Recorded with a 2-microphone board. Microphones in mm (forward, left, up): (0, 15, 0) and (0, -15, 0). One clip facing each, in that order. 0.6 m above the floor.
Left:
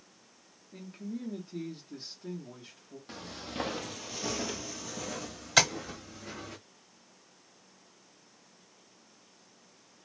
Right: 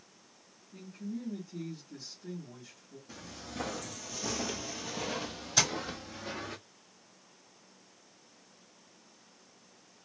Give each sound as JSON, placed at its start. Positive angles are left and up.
{"t": 0.7, "sound": "a man speaking", "side_deg": 35, "distance_m": 1.0}
{"t": 3.1, "sound": "footsteps", "side_deg": 55, "distance_m": 0.9}
{"t": 5.6, "sound": "tapping", "side_deg": 85, "distance_m": 1.3}